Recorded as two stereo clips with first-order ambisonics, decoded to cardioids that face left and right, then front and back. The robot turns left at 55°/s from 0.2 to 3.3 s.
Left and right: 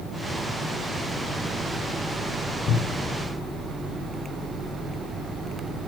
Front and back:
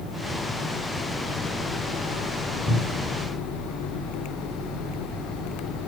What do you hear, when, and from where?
2.7 s a cupboard door: 100° left, 3.5 m; by 3.2 s 70° left, 3.5 m